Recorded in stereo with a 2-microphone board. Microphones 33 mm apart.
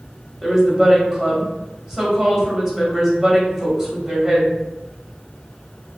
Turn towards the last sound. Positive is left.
turn(degrees=-15)  # may be behind; listen again after turning